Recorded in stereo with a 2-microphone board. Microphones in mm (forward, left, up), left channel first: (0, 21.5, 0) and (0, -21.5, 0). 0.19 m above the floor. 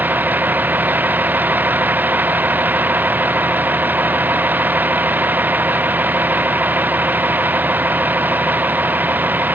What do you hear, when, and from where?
0.0 s a vehicle: 45° right (ahead or behind)